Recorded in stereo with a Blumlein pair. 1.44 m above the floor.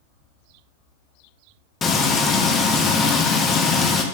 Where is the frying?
20° left, 0.9 m.